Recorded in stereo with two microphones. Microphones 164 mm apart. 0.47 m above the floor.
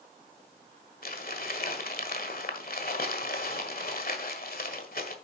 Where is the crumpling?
65° left (ahead or behind), 1.5 m.